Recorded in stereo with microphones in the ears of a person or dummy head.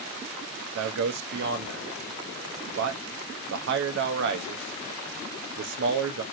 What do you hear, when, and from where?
0.8 s a man speaking: 60° right (ahead or behind), 0.5 m